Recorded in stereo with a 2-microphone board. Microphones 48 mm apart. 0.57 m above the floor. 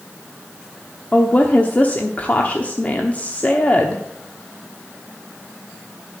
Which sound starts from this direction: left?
A woman speaking, at 1.1 s.